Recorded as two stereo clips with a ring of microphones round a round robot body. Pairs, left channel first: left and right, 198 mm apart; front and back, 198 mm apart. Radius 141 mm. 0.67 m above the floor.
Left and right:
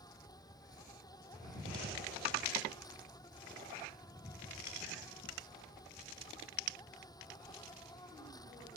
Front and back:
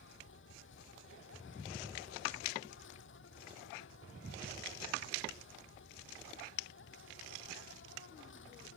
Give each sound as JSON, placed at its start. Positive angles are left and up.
{"t": 0.0, "sound": "an insect", "azimuth_deg": 20}